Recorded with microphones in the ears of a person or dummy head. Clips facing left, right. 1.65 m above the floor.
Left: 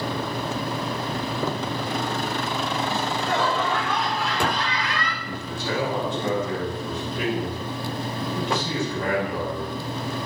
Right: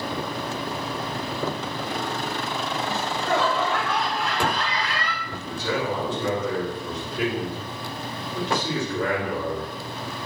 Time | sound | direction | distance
2.9 | laughter | 65° right (ahead or behind) | 3 m
5.2 | a man speaking | 85° right | 6 m